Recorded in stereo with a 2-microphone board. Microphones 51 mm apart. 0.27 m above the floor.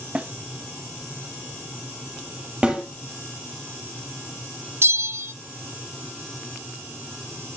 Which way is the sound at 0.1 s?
20° right (ahead or behind).